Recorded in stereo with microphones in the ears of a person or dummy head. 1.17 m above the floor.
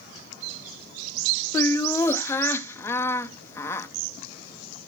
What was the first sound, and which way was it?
Laughter, 15° left (ahead or behind).